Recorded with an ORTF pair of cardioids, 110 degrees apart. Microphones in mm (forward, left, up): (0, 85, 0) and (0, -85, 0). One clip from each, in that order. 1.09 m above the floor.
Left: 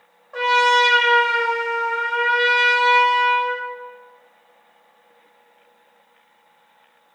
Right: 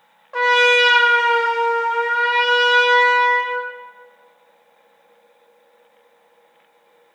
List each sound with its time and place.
0.3 s a trumpet: 25° right, 0.6 m